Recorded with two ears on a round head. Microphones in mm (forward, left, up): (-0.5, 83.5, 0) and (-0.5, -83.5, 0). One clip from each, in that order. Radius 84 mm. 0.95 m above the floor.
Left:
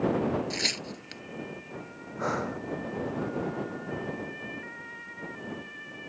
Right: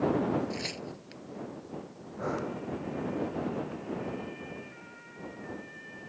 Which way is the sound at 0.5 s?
45° left (ahead or behind).